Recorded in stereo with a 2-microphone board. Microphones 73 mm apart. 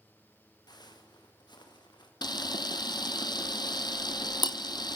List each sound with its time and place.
0.7 s footsteps: 70° left (ahead or behind), 4.5 m; by 2.1 s 90° left, 5 m
2.2 s a camera shutter: 80° left, 0.8 m